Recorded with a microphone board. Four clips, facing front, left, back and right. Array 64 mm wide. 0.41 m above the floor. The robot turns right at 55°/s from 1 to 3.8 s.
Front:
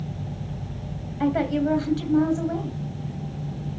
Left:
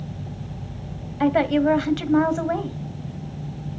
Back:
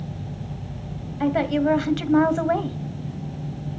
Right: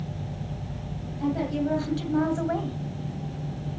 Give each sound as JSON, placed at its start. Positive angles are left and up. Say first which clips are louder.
{"t": 1.2, "sound": "a woman speaking", "louder": "left 8 dB, back 2 dB", "azimuth_deg": 95, "distance_m": 2.0}